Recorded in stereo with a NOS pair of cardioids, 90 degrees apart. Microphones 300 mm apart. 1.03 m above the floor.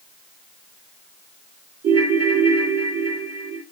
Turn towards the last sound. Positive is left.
turn(degrees=-50)